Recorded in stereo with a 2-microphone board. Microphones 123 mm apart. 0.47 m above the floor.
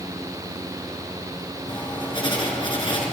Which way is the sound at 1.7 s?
40° left (ahead or behind).